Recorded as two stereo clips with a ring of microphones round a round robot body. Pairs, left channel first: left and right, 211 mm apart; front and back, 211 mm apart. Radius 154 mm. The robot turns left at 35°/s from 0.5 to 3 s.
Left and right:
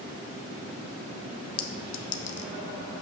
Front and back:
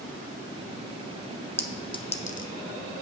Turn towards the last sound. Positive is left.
turn(degrees=30)